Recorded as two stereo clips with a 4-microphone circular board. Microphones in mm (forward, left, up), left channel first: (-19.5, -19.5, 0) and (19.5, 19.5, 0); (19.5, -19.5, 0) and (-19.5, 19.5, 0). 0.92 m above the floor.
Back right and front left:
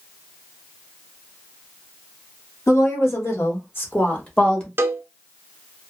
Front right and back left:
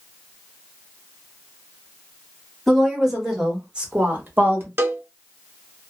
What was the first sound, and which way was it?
A woman speaking, 135° right.